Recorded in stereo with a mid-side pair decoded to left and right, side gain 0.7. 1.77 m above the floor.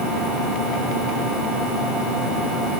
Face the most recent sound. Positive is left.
No sound to turn to.